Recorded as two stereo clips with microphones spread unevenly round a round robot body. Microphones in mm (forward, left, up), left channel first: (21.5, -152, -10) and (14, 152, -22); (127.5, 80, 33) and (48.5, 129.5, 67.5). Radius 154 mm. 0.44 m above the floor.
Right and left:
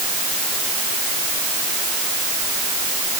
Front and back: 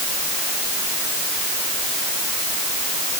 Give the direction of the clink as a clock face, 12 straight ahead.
No clink in this recording.